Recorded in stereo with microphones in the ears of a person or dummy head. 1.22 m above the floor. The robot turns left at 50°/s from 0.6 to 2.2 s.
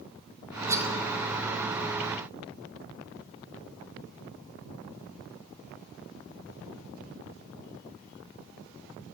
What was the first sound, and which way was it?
Cutlery clinking, 15° right (ahead or behind).